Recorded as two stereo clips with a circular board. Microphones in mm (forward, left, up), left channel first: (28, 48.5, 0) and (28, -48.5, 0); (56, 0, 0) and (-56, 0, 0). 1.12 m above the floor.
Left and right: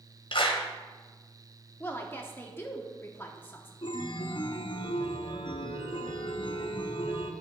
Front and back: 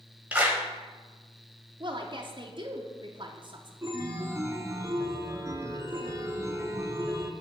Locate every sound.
0.3 s a clap: 105° left, 1.1 m
1.8 s a woman speaking: 150° left, 0.7 m
3.8 s a chime: 120° left, 0.6 m